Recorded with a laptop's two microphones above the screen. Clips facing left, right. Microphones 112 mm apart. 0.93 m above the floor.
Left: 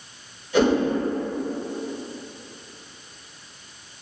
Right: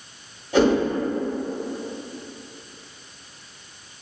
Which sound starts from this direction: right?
A whoosh, at 0.5 s.